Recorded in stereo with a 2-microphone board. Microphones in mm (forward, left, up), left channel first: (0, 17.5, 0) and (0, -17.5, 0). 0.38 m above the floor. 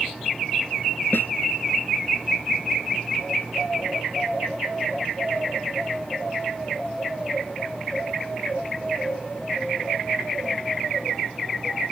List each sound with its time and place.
1.1 s a snare drum: 80° left